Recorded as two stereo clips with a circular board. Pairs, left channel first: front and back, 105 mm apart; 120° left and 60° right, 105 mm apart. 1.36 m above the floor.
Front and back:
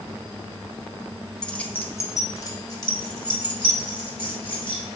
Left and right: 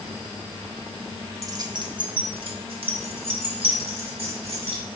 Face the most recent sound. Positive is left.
turn(degrees=-40)